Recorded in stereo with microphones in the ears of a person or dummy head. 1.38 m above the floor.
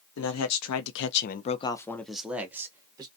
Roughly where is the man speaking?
Left.